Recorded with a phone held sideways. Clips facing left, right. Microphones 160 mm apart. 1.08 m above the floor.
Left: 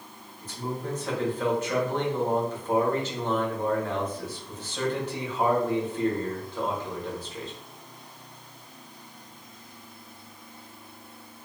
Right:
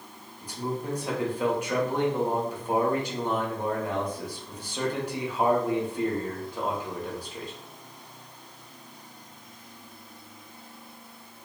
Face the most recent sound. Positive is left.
turn(degrees=-10)  # may be behind; listen again after turning